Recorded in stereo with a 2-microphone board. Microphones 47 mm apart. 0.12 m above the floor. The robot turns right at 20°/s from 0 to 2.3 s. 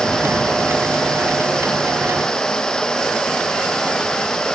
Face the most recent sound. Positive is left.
No sound to turn to.